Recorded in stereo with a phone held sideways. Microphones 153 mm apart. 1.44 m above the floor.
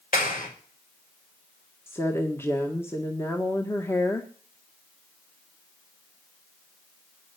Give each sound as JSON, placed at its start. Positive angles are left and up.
{"t": 0.1, "sound": "a clap", "side_deg": 65, "distance_m": 5.5}
{"t": 1.9, "sound": "a woman speaking", "side_deg": 15, "distance_m": 1.7}